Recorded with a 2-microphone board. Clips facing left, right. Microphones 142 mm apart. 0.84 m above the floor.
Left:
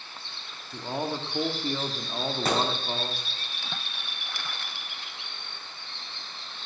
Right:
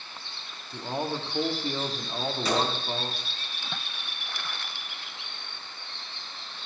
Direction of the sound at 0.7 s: Centre (ahead or behind).